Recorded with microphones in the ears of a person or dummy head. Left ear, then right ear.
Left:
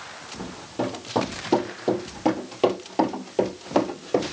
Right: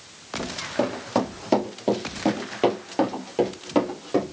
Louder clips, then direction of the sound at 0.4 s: Right 4 dB; 35° right (ahead or behind).